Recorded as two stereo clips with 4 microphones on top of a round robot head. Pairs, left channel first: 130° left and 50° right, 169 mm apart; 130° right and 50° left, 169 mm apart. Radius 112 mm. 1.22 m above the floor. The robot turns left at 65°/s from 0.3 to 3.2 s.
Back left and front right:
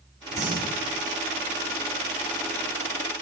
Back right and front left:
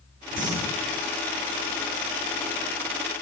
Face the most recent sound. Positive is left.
turn(degrees=180)